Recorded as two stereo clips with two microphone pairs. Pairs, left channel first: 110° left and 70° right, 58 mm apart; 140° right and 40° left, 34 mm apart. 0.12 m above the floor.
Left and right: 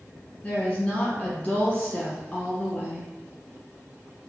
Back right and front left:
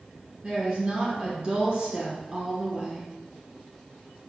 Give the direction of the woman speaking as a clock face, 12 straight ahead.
10 o'clock.